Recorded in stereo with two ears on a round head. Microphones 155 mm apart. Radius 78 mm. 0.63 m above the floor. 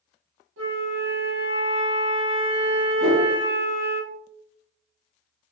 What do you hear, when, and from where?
0.6 s a flute: 80° right, 1.6 m
3.0 s a whoosh: 60° right (ahead or behind), 2.0 m